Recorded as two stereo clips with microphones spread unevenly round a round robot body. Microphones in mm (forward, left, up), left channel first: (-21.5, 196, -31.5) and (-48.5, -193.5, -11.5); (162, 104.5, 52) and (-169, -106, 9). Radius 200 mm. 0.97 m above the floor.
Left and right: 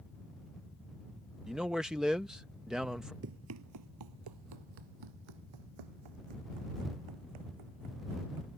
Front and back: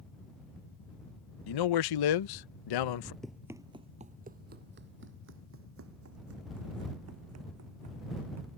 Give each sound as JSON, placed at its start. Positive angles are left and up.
{"t": 1.5, "sound": "a man speaking", "azimuth_deg": -5}
{"t": 3.2, "sound": "running footsteps", "azimuth_deg": -50}